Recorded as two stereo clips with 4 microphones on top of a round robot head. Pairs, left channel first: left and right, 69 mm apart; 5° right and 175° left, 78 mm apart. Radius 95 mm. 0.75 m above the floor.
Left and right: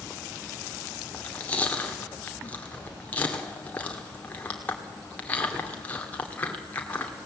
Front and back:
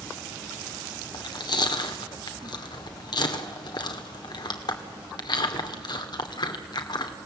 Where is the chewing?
20° left, 2 m.